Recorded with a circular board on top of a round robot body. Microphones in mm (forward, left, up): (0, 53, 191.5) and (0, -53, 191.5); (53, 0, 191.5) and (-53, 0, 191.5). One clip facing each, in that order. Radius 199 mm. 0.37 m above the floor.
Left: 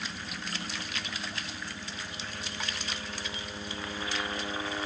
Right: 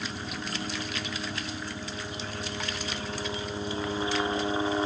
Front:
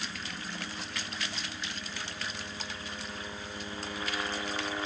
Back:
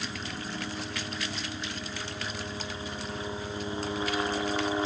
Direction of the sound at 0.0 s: 130° right.